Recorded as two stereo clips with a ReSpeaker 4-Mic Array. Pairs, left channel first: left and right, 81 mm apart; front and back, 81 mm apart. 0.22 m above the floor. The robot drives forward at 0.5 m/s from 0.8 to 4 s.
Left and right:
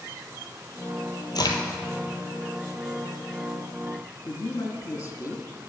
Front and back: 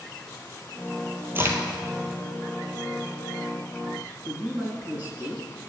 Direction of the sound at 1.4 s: 120° left.